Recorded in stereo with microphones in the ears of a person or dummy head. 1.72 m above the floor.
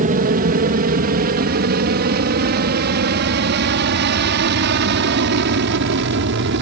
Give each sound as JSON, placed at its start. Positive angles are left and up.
{"t": 0.0, "sound": "an aircraft", "side_deg": -40}